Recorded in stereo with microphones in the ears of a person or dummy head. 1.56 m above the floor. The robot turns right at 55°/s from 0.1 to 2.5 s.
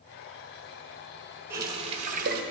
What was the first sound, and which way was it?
A running tap, 165° right.